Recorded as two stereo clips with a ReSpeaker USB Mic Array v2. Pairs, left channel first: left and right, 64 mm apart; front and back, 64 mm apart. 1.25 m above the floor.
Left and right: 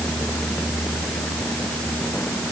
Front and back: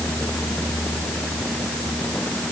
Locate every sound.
Only background noise.